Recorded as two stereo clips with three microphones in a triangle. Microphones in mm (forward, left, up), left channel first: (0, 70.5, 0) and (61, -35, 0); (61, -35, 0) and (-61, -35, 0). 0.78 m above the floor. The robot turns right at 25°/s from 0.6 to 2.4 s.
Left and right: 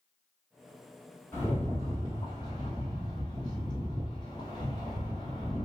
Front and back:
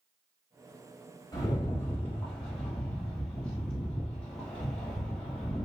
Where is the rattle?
50° left, 1.4 m; by 5.7 s 80° left, 1.4 m.